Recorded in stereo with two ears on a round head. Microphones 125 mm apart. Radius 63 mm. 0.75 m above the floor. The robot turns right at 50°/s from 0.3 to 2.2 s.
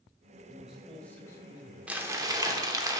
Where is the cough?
No cough in this recording.